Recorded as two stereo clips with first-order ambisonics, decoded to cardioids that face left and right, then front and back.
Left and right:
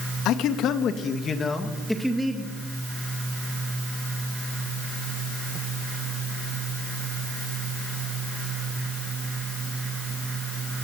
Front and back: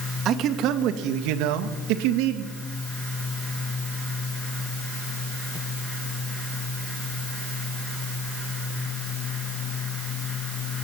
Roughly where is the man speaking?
Behind left.